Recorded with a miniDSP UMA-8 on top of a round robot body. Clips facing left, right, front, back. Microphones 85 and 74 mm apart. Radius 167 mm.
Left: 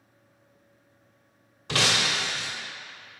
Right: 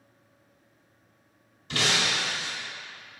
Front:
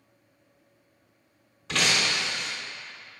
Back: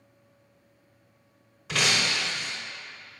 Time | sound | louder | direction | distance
1.7 | breaking glass | left 1 dB, even | 95° left | 0.7 m